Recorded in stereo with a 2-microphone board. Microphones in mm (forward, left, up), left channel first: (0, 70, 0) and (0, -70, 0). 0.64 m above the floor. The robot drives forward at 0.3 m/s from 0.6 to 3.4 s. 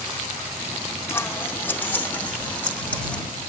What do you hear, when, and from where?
1.1 s scissors: 15° left (ahead or behind), 0.8 m; by 3.2 s 10° left (ahead or behind), 1.4 m